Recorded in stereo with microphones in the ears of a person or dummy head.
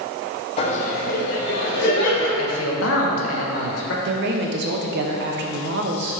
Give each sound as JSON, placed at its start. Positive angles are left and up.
{"t": 0.6, "sound": "laughter", "side_deg": 35, "distance_m": 1.0}
{"t": 2.4, "sound": "a man speaking", "side_deg": 80, "distance_m": 1.4}
{"t": 4.0, "sound": "a woman speaking", "side_deg": -55, "distance_m": 0.9}